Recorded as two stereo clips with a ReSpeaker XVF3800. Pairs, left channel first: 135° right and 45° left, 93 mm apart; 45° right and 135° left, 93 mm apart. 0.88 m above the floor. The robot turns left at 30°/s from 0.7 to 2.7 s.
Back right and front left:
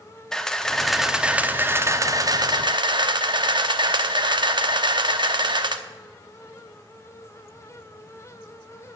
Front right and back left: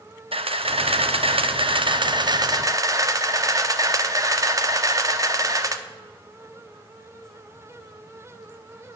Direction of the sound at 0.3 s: 140° left.